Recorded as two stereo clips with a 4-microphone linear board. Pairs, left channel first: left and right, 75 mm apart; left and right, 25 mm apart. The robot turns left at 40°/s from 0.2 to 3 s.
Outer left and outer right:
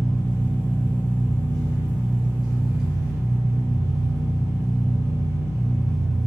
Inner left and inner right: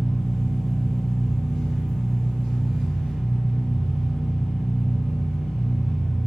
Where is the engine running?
175° left, 1.3 m; by 6.3 s 60° left, 1.3 m.